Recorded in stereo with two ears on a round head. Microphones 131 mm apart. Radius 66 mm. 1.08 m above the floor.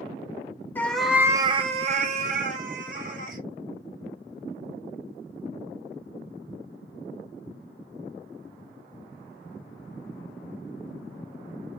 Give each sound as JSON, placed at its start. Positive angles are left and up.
{"t": 0.8, "sound": "a cat meowing", "side_deg": 15, "distance_m": 0.6}